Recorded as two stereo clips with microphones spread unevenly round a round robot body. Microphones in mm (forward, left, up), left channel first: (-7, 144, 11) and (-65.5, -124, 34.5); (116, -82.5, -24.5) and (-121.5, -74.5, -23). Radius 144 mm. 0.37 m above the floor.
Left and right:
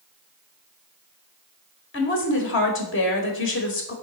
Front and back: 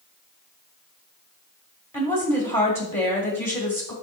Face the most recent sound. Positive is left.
turn(degrees=75)